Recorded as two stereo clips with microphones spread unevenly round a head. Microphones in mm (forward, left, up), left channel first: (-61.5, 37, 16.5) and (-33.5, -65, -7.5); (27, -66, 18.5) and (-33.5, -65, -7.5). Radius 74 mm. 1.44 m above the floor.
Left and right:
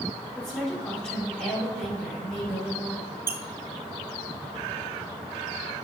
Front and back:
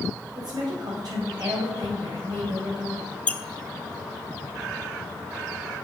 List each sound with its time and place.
0.3 s a woman speaking: 175° right, 4 m
3.3 s a squeak: 5° left, 0.5 m